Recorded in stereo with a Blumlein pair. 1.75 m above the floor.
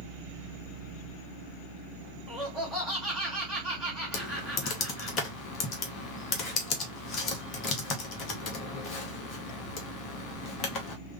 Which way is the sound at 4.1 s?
35° left.